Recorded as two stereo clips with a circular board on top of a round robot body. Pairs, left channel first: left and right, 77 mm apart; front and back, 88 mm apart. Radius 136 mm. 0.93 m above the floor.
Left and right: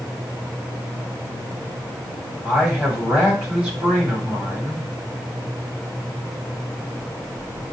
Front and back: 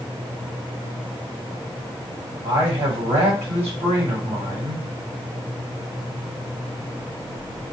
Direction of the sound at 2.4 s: 175° right.